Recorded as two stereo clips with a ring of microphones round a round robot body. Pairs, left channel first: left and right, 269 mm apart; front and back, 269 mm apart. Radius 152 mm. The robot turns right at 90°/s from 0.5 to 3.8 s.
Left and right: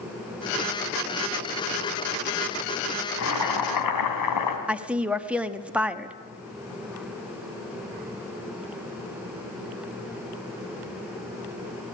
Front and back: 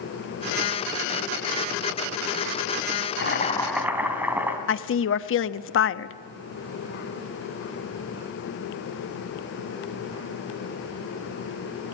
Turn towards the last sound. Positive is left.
turn(degrees=-5)